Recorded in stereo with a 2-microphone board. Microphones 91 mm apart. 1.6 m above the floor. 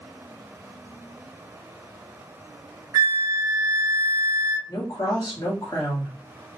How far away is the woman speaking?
About 2.5 m.